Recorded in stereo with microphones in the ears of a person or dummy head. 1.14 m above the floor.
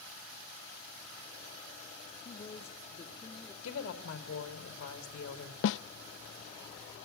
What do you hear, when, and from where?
2.2 s a woman speaking: 30° left (ahead or behind), 2.0 m; by 3.5 s 15° left (ahead or behind), 2.5 m
3.6 s a woman speaking: 80° left, 4.5 m
5.6 s a snare drum: 70° left (ahead or behind), 0.6 m